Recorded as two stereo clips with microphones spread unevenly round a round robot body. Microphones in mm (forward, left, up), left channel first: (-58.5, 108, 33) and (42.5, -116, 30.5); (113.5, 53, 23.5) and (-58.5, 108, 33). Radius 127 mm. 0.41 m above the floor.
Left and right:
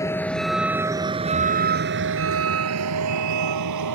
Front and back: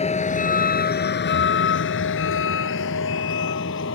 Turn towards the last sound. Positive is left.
turn(degrees=-55)